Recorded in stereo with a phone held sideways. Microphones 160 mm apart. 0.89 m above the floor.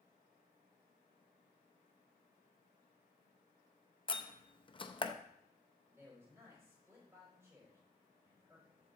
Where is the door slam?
30° left (ahead or behind), 0.6 m.